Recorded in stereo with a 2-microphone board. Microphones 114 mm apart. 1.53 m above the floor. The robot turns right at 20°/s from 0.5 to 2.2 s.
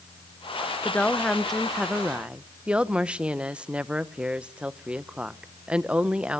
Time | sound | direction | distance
0.8 | a woman speaking | 15° left (ahead or behind) | 0.9 m